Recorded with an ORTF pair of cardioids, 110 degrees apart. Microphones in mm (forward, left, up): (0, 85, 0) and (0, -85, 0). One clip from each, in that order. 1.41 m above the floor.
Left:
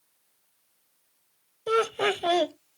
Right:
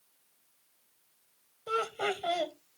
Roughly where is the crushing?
I don't hear crushing.